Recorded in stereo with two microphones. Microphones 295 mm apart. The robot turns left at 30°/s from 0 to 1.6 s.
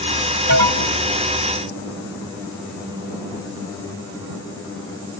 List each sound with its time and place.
0.5 s an alarm: 75° right (ahead or behind); by 1.0 s 65° right (ahead or behind)